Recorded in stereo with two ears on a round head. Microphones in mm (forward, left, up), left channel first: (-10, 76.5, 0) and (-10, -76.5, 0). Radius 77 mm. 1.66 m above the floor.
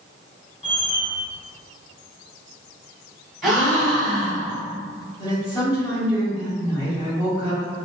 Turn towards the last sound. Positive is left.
turn(degrees=25)  # may be behind; listen again after turning